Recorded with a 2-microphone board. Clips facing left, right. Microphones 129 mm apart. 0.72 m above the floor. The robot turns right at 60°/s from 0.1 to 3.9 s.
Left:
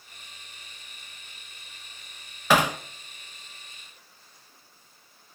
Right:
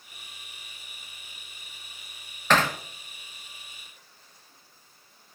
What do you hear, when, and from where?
2.5 s hammering: 10° left (ahead or behind), 0.8 m; by 2.8 s 20° left (ahead or behind), 0.8 m